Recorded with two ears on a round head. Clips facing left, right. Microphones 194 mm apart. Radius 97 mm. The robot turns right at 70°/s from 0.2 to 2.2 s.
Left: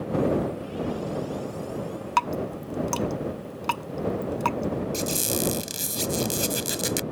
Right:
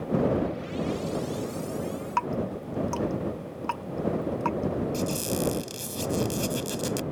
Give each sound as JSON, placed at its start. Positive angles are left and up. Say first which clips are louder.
{"t": 2.2, "sound": "dripping", "louder": "left 2 dB", "side_deg": 55}
{"t": 4.9, "sound": "a squeak", "louder": "even", "side_deg": 30}